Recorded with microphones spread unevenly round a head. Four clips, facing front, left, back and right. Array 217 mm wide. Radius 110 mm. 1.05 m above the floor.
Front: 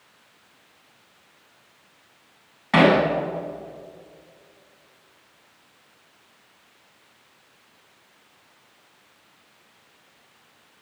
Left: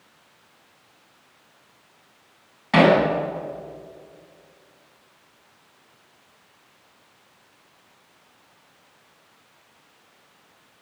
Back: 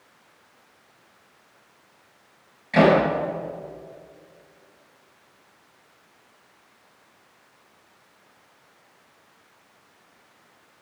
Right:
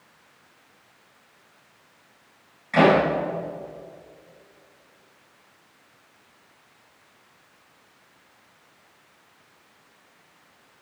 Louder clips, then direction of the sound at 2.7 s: Left 1 dB, even; 40° left.